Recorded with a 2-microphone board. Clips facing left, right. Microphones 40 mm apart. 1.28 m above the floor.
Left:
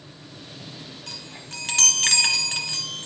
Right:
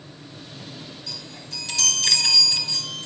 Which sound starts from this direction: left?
A chime, at 1.1 s.